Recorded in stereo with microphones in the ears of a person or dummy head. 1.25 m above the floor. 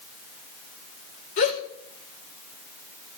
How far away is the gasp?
About 3 m.